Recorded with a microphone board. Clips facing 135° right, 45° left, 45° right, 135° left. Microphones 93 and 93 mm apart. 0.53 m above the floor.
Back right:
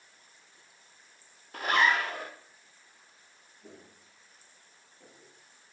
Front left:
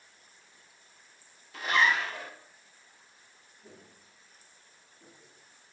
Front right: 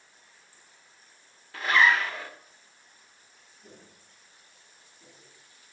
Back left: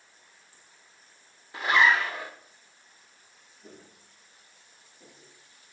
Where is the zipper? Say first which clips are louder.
Back right 1 dB, even; 160° right, 0.9 m.